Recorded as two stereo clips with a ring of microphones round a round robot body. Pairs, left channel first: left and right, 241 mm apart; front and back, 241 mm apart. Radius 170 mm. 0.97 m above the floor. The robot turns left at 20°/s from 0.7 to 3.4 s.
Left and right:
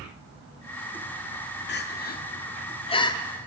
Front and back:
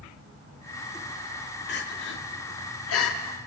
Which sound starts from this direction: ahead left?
Crying, at 1.7 s.